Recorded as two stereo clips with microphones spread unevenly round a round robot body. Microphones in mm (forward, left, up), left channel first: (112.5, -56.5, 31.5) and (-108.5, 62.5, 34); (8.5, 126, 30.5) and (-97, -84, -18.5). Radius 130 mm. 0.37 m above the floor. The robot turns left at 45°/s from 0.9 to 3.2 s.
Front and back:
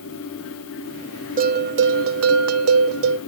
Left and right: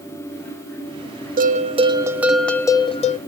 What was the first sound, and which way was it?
A bell, 155° right.